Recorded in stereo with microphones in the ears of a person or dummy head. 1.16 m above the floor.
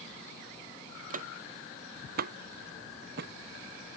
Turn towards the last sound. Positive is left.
turn(degrees=-60)  # may be behind; listen again after turning